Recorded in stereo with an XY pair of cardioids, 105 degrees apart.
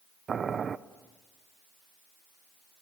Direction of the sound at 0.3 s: 40° right.